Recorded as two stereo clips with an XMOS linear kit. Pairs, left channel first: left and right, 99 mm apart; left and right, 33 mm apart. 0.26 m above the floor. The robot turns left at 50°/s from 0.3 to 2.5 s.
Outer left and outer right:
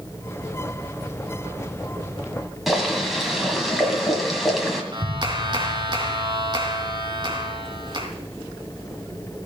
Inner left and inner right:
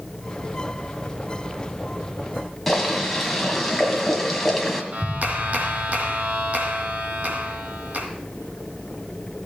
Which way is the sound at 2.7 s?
Centre (ahead or behind).